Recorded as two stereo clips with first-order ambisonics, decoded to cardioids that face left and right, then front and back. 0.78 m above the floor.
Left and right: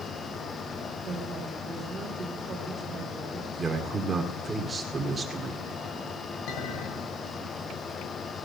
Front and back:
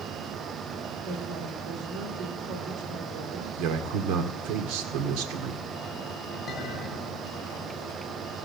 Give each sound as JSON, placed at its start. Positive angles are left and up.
{"t": 1.0, "sound": "a woman speaking", "azimuth_deg": -170, "distance_m": 3.5}
{"t": 3.6, "sound": "a man speaking", "azimuth_deg": -165, "distance_m": 1.8}
{"t": 6.5, "sound": "a clink", "azimuth_deg": 75, "distance_m": 7.0}